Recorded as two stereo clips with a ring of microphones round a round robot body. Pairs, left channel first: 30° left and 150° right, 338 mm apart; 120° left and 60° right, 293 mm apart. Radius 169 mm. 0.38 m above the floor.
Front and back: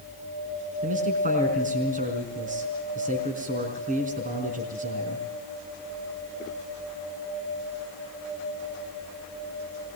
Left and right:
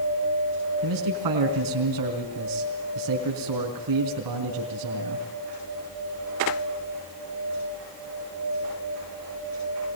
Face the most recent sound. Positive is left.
turn(degrees=-85)